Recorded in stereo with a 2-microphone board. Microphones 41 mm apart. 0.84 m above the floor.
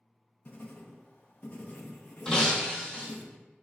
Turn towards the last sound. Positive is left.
turn(degrees=20)  # may be behind; listen again after turning